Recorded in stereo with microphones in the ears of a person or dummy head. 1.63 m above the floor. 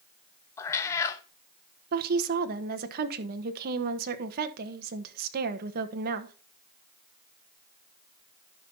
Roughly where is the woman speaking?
Right.